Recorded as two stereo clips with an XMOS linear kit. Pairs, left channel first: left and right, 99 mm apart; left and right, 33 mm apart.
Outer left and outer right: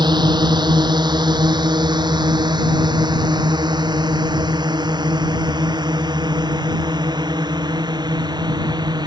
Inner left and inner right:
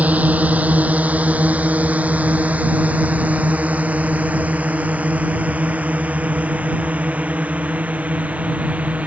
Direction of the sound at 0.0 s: 50° right (ahead or behind).